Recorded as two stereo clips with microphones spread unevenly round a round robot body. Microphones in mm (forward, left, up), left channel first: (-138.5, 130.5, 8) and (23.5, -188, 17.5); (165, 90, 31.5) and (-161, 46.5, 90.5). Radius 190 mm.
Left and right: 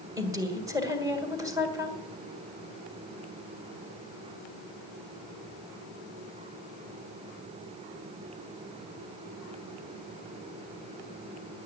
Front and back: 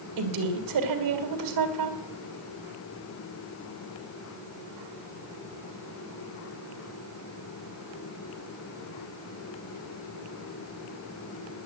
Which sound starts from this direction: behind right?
A woman speaking, at 0.2 s.